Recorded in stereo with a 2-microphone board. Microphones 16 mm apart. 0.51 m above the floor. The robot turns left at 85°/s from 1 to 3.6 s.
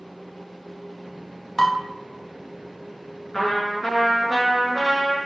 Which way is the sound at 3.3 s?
45° left (ahead or behind).